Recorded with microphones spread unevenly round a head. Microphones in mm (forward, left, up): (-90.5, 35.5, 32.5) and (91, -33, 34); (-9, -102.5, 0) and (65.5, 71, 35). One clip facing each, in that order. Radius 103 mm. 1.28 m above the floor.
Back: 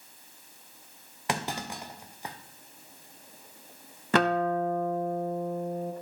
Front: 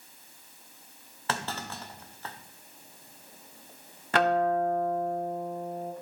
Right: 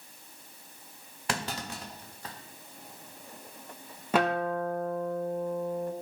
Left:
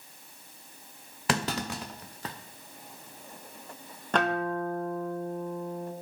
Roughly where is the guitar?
Behind.